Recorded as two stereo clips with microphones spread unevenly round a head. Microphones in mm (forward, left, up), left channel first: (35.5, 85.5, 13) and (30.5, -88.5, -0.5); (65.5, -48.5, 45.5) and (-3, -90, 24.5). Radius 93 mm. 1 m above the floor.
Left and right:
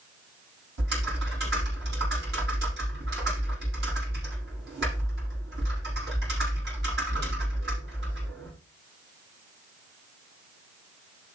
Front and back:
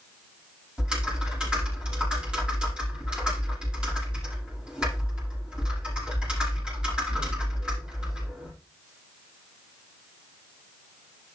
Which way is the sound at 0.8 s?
70° right.